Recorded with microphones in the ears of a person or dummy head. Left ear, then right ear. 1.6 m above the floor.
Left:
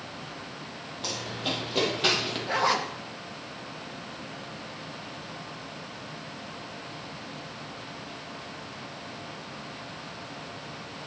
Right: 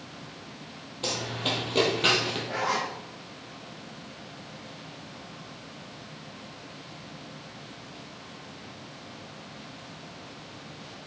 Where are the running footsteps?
25° right (ahead or behind), 2.5 m; by 2.4 s 10° left (ahead or behind), 2.5 m.